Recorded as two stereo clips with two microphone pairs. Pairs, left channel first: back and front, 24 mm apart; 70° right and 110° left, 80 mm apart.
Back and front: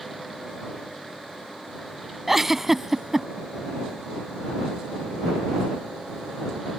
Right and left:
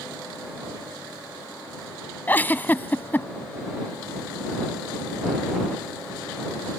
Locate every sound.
2.3 s a giggle: 65° right